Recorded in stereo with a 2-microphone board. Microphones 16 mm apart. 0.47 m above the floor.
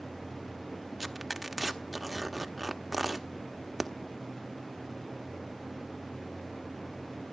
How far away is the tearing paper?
About 1.1 m.